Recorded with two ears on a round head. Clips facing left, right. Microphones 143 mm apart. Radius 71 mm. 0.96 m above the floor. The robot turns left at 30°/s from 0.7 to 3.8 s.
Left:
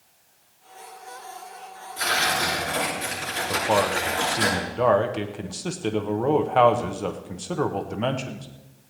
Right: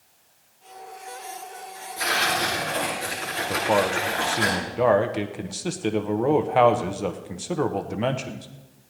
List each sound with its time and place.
2.0 s tearing paper: 175° right, 8 m; by 4.5 s 130° left, 8 m
3.5 s a man speaking: 5° right (ahead or behind), 0.9 m